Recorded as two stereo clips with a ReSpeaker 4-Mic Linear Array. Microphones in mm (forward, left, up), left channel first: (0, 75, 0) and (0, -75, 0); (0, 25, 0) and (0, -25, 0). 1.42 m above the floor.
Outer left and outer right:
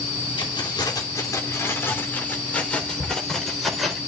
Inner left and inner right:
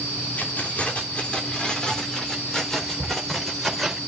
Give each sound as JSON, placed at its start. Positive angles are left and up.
{"t": 0.4, "sound": "keys jangling", "side_deg": 30, "distance_m": 3.0}